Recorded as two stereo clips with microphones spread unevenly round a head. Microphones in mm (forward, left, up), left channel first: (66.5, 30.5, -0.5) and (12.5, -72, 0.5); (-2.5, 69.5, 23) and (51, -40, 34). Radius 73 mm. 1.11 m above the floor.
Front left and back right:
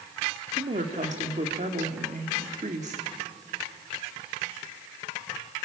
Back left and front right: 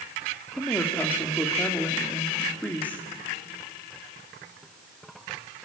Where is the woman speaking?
165° right, 2 m.